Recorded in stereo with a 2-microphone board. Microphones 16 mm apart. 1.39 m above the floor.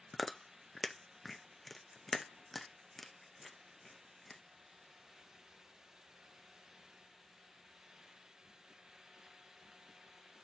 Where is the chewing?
15° left (ahead or behind), 0.7 m.